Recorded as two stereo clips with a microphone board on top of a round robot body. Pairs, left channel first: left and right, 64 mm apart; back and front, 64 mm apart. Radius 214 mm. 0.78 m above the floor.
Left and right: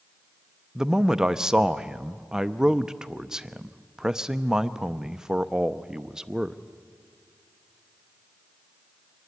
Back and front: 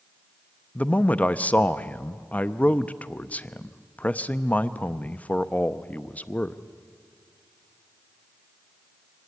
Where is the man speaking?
155° right, 0.9 m.